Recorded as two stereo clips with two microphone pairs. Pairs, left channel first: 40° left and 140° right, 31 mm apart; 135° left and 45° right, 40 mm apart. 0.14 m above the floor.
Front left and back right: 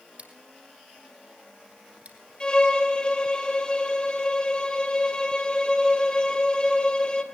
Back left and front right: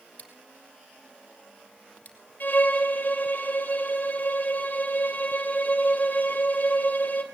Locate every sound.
0.2 s scissors: straight behind, 4.5 m
2.4 s a violin: 100° left, 3 m